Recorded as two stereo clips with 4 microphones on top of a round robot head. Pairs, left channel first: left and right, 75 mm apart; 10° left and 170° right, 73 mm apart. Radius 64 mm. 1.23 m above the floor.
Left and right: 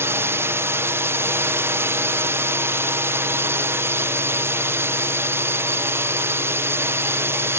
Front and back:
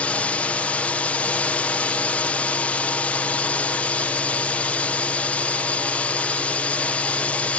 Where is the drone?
55° right.